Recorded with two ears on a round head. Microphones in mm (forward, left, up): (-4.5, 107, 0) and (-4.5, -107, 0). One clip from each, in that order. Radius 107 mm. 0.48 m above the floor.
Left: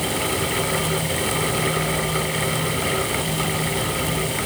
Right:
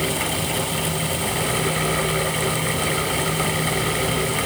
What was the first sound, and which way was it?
Only background noise.